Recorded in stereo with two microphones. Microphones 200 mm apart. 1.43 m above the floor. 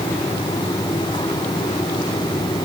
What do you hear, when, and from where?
Only background noise.